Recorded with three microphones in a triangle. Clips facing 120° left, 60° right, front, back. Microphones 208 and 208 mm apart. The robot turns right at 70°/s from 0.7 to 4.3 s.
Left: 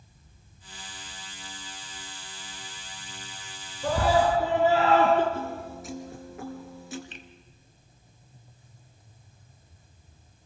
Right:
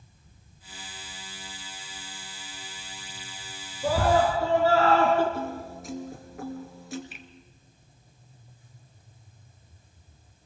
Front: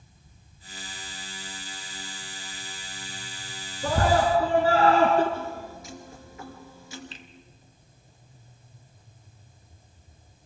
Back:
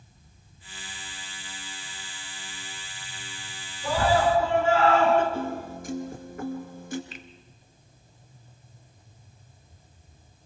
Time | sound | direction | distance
3.8 | a scream | 15° left | 3 m
5.3 | a piano | 150° right | 3 m
7.1 | a finger snap | 15° left | 1.3 m